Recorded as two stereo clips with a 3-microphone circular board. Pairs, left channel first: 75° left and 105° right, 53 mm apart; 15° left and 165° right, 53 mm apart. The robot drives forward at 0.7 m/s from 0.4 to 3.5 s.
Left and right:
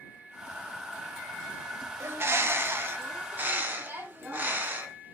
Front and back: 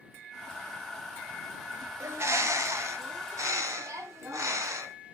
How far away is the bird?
About 1.2 m.